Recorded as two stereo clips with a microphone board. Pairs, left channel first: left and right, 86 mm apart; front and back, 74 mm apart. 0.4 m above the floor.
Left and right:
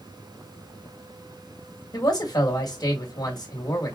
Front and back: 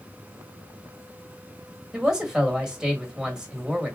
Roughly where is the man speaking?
Left.